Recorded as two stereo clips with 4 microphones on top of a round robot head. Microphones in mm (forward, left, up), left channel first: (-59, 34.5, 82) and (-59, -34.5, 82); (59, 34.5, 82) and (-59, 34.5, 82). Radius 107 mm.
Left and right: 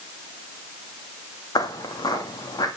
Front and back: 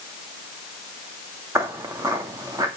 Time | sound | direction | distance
1.6 | footsteps | 115° left | 1.9 m